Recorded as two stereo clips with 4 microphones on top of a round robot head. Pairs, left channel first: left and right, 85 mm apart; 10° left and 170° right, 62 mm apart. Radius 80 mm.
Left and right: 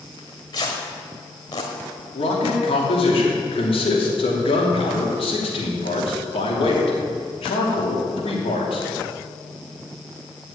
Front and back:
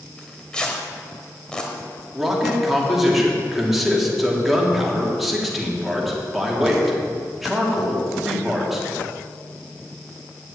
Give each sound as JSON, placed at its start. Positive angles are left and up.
{"t": 0.2, "sound": "tearing paper", "azimuth_deg": 80, "distance_m": 1.4}
{"t": 2.1, "sound": "a man speaking", "azimuth_deg": 100, "distance_m": 3.0}